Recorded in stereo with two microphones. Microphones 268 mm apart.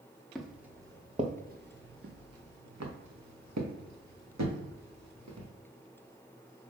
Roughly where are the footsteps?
Centre.